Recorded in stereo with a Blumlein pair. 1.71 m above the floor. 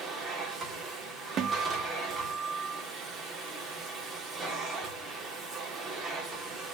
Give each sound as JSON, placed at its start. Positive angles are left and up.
{"t": 0.0, "sound": "a machine running", "azimuth_deg": -20, "distance_m": 3.5}
{"t": 1.4, "sound": "a guitar", "azimuth_deg": -30, "distance_m": 0.9}